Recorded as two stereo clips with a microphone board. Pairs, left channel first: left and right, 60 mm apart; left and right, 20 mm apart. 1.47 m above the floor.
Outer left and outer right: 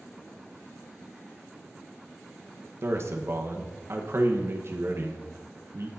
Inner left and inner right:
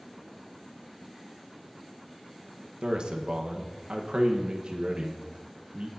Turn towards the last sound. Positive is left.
turn(degrees=-45)  # may be behind; listen again after turning